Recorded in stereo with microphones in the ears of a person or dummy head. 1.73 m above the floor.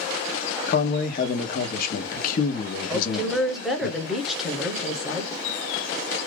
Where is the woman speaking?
Centre (ahead or behind), 0.7 m.